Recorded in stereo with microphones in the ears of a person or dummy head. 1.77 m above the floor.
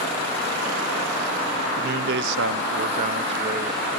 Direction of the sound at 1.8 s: 55° right (ahead or behind).